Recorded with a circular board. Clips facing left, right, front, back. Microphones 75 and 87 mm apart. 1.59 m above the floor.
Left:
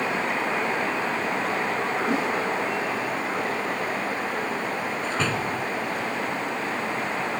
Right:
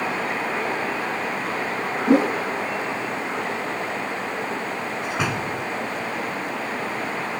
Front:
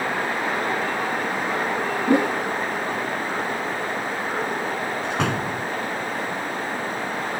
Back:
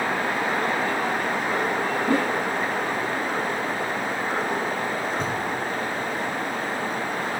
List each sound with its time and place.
2.1 s a whoosh: 70° right
5.0 s a door slam: 15° right